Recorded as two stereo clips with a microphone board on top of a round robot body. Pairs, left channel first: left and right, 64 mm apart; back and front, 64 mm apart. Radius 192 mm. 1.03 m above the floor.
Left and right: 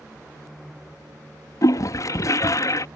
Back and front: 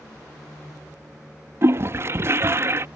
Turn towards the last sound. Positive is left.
turn(degrees=50)